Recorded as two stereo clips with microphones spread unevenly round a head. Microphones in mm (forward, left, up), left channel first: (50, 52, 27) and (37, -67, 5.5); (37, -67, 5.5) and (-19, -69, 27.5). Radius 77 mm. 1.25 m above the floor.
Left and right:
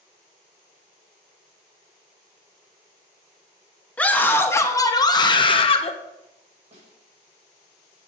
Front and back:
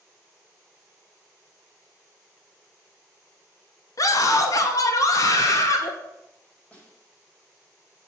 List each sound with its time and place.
4.0 s a scream: 5° left, 2.5 m; by 5.9 s 45° left, 2 m
6.7 s a snare drum: 65° right, 6.5 m